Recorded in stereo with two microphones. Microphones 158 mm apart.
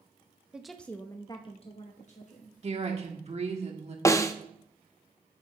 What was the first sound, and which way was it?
A woman speaking, 5° right (ahead or behind).